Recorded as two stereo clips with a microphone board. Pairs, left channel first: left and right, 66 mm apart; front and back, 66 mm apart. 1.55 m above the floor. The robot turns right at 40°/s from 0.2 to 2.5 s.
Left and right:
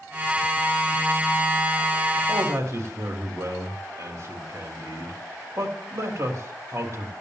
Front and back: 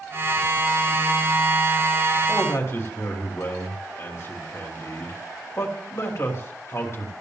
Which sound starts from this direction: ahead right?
A man speaking, at 2.3 s.